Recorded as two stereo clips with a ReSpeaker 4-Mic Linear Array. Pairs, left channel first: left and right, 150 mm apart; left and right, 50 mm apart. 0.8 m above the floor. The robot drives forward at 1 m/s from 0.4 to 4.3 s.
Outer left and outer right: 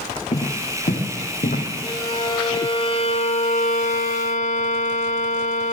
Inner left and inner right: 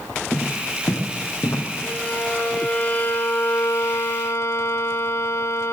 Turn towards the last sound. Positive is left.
turn(degrees=60)  # may be behind; listen again after turning